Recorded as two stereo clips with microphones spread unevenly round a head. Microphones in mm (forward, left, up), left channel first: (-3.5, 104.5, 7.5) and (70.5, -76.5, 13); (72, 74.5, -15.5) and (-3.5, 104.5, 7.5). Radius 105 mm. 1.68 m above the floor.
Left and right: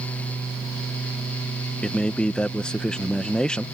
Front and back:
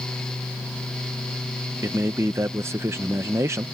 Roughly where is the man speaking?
Behind.